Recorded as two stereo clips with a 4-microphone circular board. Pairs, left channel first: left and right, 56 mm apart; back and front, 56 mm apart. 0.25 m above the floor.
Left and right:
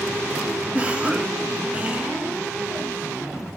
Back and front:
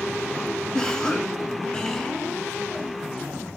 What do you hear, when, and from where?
0.7 s a cough: 115° right, 1.4 m